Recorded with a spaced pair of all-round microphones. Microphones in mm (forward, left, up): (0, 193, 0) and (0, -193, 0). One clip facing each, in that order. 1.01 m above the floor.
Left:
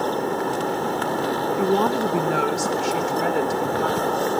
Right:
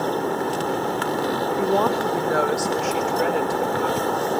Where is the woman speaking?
20° left (ahead or behind), 0.7 m; by 4.4 s 65° left (ahead or behind), 1.9 m.